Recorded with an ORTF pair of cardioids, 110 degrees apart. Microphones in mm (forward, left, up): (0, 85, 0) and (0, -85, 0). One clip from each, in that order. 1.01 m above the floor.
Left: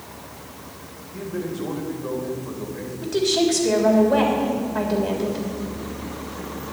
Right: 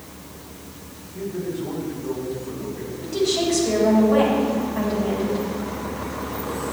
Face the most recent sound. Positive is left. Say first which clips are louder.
# left 2 dB
turn(degrees=50)